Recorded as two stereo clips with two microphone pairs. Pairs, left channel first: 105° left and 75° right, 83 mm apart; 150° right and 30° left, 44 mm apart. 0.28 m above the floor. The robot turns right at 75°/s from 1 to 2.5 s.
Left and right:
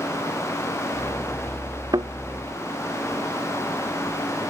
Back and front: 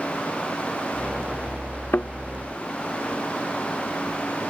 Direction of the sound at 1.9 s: 115° right.